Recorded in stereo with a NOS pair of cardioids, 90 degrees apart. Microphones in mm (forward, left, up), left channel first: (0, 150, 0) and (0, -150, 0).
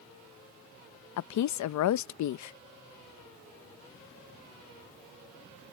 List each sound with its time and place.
1.2 s a woman speaking: 65° left